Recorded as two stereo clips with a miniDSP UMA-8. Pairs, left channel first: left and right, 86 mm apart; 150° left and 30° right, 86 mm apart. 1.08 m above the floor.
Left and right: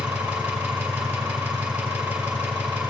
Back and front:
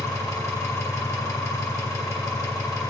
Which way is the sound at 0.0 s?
165° right.